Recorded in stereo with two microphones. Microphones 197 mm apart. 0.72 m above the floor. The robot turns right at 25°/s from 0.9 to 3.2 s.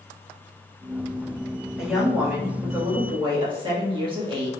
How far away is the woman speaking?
About 1.2 m.